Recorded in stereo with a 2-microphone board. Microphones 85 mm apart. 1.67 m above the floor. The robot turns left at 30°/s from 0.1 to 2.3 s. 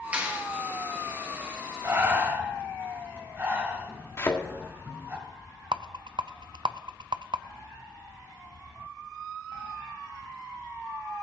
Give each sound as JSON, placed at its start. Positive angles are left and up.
{"t": 0.1, "sound": "a clap", "side_deg": -15, "distance_m": 1.8}
{"t": 1.8, "sound": "breathing", "side_deg": -35, "distance_m": 2.5}
{"t": 4.2, "sound": "a thud", "side_deg": 30, "distance_m": 1.6}
{"t": 5.7, "sound": "a rattle", "side_deg": -75, "distance_m": 0.5}